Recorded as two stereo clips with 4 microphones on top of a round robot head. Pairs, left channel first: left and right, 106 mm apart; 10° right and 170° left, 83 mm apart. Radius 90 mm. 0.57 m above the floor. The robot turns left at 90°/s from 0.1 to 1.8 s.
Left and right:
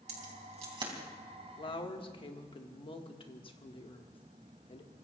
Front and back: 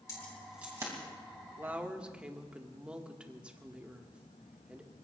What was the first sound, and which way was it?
Keys jangling, 70° right.